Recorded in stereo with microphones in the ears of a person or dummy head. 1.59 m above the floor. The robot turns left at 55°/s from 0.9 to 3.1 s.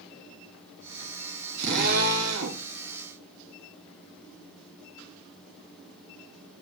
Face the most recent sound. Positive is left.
turn(degrees=-140)